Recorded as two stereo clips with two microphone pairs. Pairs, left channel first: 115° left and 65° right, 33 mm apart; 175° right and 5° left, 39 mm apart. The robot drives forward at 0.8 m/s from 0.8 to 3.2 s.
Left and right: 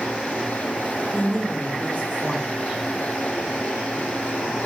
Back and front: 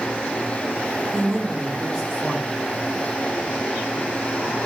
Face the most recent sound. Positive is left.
turn(degrees=130)